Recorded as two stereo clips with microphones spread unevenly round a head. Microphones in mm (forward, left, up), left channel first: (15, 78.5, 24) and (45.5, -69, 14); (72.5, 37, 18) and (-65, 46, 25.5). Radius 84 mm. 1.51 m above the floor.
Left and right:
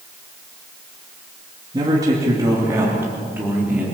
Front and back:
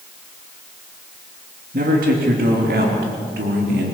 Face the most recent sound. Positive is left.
turn(degrees=-160)